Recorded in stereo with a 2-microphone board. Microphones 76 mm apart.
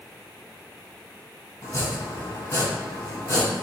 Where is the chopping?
45° left (ahead or behind), 1.4 m.